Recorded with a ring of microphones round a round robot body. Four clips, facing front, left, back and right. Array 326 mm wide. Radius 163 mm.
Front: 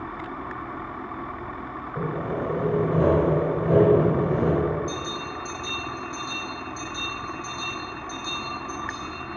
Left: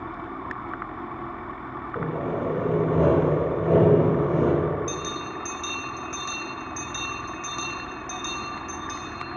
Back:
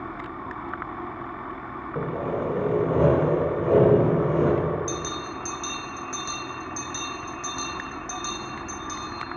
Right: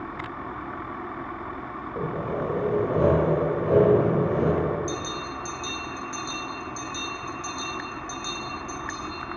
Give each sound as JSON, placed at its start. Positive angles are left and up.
{"t": 1.9, "sound": "sawing", "azimuth_deg": 150, "distance_m": 1.6}
{"t": 4.9, "sound": "a bell", "azimuth_deg": 165, "distance_m": 1.1}